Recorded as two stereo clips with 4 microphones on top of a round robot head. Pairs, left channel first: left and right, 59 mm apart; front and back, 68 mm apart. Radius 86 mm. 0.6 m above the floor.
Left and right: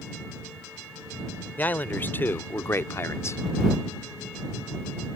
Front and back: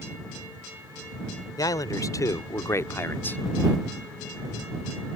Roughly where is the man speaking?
Ahead left.